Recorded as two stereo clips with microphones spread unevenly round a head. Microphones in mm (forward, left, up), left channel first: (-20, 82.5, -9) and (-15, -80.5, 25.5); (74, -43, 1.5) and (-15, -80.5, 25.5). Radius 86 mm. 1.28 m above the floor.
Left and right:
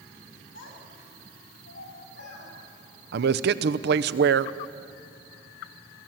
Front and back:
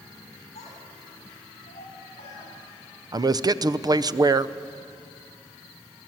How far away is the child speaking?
About 7.5 m.